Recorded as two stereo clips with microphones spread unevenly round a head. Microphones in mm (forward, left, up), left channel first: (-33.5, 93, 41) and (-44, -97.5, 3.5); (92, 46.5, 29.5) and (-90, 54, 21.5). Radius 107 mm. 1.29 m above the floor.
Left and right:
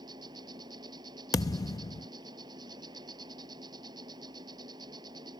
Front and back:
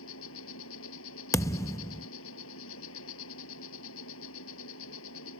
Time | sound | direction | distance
0.0 | an insect | 20° right | ?
1.3 | a thud | 55° left | ?